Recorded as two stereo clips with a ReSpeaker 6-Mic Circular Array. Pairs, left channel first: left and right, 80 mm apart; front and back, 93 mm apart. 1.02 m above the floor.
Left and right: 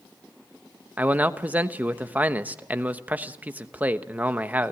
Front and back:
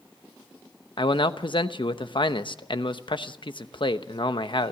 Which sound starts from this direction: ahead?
A man speaking, at 1.0 s.